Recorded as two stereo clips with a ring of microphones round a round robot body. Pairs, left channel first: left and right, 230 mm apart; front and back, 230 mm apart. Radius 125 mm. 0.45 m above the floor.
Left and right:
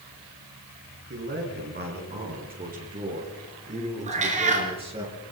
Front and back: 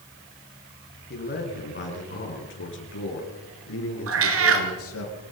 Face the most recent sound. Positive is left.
turn(degrees=-155)